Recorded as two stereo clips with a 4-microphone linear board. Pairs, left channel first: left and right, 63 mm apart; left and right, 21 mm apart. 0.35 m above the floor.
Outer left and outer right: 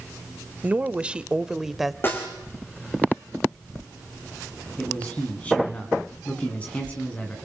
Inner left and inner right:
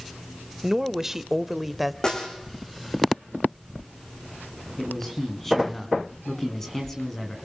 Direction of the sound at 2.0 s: 35° left (ahead or behind).